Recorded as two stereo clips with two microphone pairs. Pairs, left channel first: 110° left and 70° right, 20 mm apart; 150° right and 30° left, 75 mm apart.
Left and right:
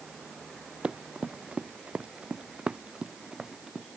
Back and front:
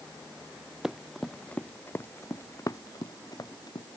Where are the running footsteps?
55° right; by 3.9 s 120° right.